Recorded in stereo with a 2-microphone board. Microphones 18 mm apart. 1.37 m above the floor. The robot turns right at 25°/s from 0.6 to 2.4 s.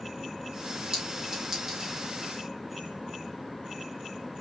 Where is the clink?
40° right (ahead or behind), 2.5 m; by 1.9 s 15° right (ahead or behind), 2.5 m.